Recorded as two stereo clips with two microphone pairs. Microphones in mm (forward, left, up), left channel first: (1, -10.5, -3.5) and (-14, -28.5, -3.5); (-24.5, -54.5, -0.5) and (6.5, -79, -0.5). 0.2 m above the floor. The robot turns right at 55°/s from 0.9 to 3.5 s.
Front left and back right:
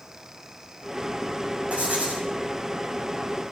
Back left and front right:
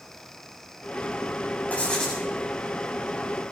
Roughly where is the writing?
Behind.